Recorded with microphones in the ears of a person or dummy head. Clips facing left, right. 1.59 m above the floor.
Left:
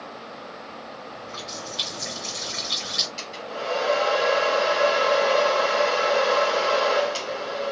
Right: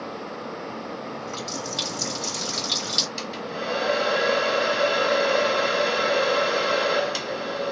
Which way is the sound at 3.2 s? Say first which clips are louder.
Even; 15° right (ahead or behind).